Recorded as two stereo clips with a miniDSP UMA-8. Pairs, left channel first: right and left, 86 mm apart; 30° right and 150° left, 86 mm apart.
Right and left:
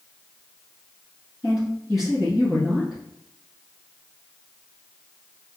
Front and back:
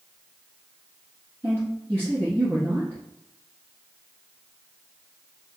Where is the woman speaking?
170° left, 1.3 m.